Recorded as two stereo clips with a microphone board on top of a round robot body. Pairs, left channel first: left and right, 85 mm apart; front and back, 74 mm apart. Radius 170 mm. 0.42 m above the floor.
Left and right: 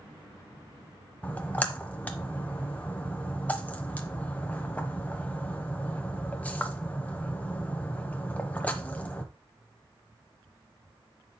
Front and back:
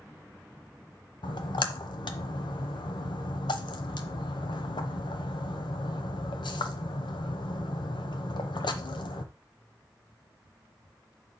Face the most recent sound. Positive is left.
turn(degrees=15)